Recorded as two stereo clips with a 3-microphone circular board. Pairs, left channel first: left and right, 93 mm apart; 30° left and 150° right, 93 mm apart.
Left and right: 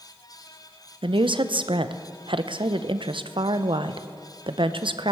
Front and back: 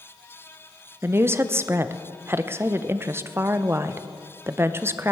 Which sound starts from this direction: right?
A woman speaking, at 1.0 s.